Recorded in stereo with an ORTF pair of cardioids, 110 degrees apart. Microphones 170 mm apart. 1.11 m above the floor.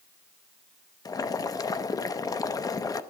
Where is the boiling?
25° left, 0.7 m.